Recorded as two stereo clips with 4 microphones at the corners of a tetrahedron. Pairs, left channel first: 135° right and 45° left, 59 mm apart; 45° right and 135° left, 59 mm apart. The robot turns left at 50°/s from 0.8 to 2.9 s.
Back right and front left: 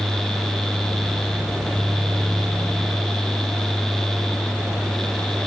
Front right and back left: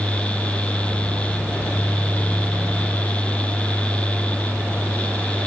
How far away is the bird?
I don't hear a bird.